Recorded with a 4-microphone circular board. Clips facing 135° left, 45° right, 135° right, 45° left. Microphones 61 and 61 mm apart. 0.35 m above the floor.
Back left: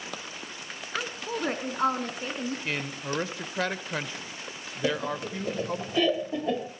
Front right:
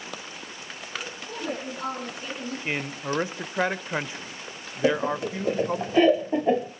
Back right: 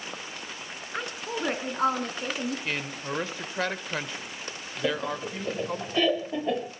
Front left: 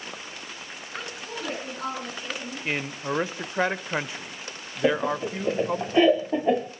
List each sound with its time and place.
0.9 s a woman speaking: 160° left, 4 m; by 2.5 s 165° right, 4.5 m
2.6 s a man speaking: straight ahead, 0.9 m
4.8 s laughter: 5° right, 1.2 m